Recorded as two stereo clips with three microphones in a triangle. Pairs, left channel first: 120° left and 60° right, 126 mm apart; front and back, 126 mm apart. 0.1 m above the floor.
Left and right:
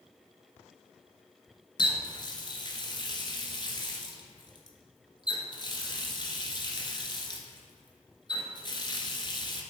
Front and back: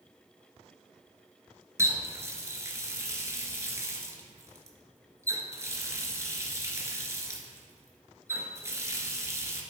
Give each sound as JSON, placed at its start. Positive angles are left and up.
{"t": 1.8, "sound": "a running tap", "azimuth_deg": 130, "distance_m": 1.1}